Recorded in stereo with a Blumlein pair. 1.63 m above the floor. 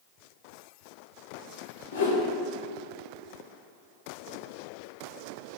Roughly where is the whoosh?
Ahead left.